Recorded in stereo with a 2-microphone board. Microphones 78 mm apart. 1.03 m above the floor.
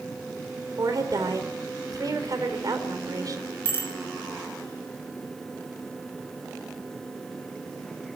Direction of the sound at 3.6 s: 30° left (ahead or behind).